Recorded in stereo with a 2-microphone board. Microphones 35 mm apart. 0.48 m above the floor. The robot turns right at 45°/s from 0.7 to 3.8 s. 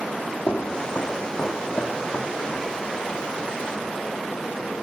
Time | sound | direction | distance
0.5 | footsteps | 60° left (ahead or behind) | 1.3 m